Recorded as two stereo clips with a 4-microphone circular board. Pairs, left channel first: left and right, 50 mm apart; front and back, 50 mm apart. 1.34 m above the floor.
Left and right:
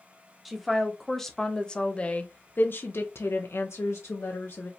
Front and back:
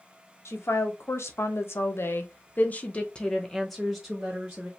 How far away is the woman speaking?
About 1.4 m.